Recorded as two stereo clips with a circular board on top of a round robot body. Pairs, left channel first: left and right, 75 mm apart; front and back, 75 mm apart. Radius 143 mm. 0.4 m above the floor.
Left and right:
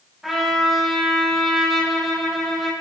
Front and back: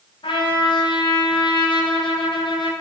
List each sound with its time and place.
0.2 s a trumpet: straight ahead, 1.2 m